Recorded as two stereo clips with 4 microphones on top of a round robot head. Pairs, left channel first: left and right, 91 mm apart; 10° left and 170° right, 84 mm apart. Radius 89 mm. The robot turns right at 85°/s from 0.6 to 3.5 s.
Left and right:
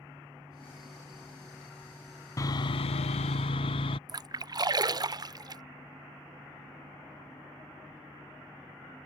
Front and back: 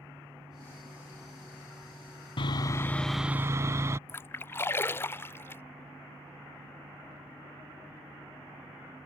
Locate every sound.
2.4 s sawing: 35° left; by 4.0 s 130° left
4.1 s a splash: 50° right